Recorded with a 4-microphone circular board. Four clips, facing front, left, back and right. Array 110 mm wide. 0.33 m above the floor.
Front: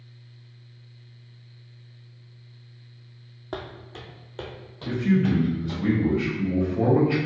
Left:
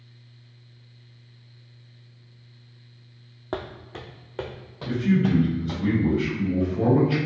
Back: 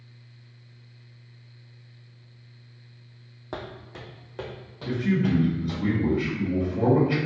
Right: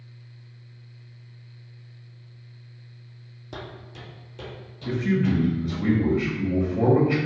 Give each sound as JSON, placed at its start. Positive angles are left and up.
{"t": 3.5, "sound": "footsteps", "azimuth_deg": 90, "distance_m": 0.8}
{"t": 4.8, "sound": "a man speaking", "azimuth_deg": -90, "distance_m": 1.7}